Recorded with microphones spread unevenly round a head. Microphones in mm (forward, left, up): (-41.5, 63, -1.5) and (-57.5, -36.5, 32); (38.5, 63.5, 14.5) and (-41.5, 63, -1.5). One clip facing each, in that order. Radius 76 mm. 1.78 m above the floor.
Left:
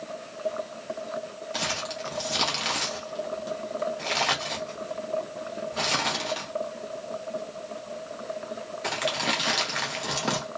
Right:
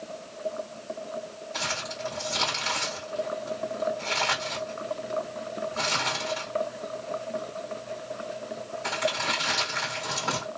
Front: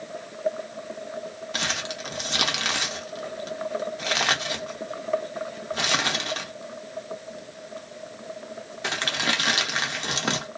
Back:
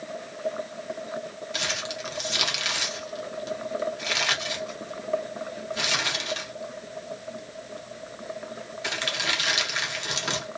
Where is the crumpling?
25° left, 0.8 m.